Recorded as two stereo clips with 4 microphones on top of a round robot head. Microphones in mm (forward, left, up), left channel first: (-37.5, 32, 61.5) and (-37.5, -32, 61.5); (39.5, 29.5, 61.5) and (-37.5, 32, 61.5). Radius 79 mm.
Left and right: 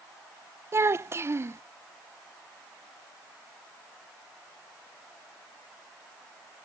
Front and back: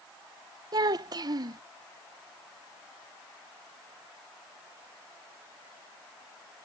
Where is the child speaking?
140° right.